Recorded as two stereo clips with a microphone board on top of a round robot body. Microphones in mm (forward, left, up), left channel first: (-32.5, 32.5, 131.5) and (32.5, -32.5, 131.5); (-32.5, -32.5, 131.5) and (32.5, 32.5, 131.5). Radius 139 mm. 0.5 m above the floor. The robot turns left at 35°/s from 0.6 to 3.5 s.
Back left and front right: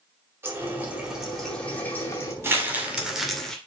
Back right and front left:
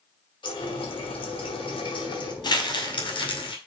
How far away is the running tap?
About 2.5 m.